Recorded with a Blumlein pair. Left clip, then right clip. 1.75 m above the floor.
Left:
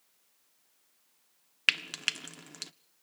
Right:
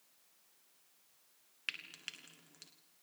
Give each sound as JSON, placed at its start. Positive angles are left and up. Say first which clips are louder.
{"t": 1.7, "sound": "frying", "louder": "left 15 dB", "azimuth_deg": 55, "distance_m": 0.7}